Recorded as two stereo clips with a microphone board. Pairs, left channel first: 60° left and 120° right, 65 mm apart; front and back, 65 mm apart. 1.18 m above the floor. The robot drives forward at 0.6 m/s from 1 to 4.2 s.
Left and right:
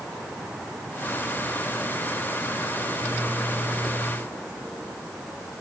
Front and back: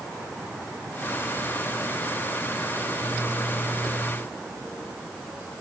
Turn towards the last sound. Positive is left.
No sound to turn to.